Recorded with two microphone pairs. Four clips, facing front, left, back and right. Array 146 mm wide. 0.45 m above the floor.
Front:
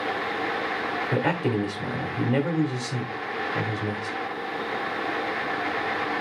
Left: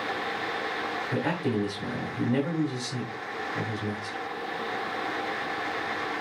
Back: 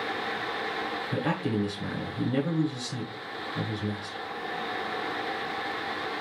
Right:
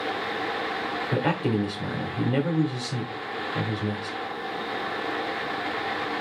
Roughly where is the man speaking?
Ahead right.